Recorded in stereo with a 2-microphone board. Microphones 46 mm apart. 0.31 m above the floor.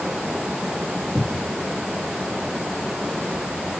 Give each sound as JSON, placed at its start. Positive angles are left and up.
{"t": 1.1, "sound": "a cupboard door", "side_deg": 20, "distance_m": 0.5}